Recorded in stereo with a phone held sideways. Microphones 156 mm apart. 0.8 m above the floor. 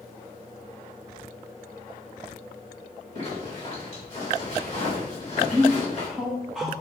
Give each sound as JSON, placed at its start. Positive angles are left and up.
{"t": 3.1, "sound": "a zipper", "side_deg": 45, "distance_m": 1.7}
{"t": 5.5, "sound": "a man speaking", "side_deg": -5, "distance_m": 0.5}